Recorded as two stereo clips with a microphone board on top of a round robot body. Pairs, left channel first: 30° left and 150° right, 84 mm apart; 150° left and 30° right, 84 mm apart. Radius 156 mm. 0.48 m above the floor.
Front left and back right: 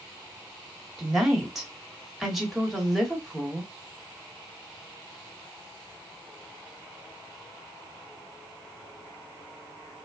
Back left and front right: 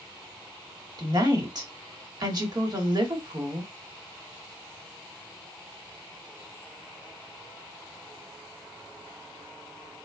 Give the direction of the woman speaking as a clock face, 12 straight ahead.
2 o'clock.